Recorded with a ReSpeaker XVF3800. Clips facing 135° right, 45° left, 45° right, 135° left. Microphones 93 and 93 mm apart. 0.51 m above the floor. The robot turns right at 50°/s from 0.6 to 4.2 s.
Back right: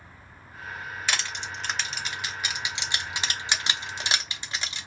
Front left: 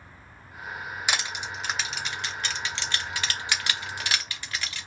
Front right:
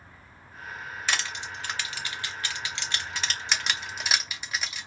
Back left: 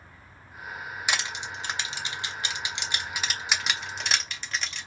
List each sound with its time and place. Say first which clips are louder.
1.1 s crushing: front left 1 dB, even; 90° left, 0.8 m; by 4.9 s 115° right, 0.8 m